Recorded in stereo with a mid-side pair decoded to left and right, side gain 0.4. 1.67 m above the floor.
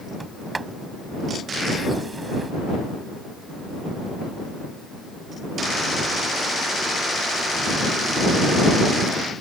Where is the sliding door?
30° right.